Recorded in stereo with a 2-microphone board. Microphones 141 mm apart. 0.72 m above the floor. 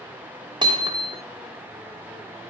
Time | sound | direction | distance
0.6 | hammering | 35° right (ahead or behind) | 1.2 m